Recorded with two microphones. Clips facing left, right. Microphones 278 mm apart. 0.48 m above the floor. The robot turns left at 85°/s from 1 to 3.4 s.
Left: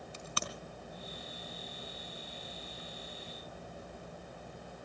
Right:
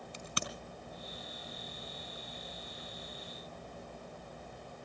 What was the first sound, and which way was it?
A crack, 15° right (ahead or behind).